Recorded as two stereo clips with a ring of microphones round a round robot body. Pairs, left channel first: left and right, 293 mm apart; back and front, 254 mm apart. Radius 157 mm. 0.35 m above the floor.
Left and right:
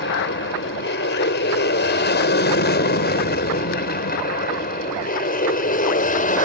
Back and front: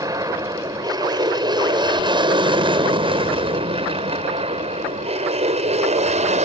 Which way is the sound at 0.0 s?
70° left.